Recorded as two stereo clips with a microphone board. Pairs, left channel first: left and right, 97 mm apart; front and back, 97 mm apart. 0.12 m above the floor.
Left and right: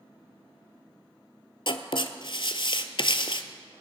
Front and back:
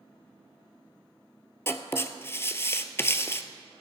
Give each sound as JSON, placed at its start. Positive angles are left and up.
{"t": 1.7, "sound": "writing", "azimuth_deg": 65, "distance_m": 0.7}